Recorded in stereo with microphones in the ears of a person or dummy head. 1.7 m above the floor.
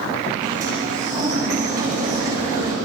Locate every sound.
0.4 s a sliding door: 45° right (ahead or behind), 7 m